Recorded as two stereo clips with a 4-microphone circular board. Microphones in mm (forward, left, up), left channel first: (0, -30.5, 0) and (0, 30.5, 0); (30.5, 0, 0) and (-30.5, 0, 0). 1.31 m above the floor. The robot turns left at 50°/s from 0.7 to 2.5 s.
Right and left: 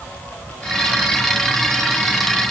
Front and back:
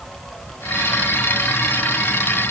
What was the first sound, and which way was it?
Only background noise.